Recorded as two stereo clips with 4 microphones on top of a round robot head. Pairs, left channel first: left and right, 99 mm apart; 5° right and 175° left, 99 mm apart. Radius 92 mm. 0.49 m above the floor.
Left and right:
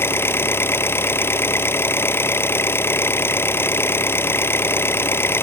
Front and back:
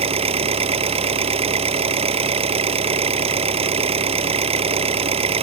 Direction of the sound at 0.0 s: 155° left.